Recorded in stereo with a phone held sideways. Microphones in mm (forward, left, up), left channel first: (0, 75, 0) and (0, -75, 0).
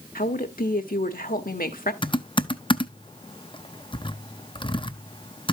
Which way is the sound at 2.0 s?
35° left (ahead or behind).